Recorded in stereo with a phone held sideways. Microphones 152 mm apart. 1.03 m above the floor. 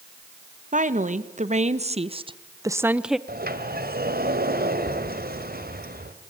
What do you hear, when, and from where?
0.7 s a woman speaking: 50° right (ahead or behind), 1.5 m; by 3.2 s centre (ahead or behind), 0.7 m
3.3 s a sliding door: 70° right (ahead or behind), 2.0 m